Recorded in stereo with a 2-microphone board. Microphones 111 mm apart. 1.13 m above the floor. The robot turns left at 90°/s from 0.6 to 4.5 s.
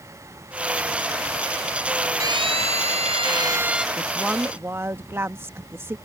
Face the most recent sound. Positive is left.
turn(degrees=-25)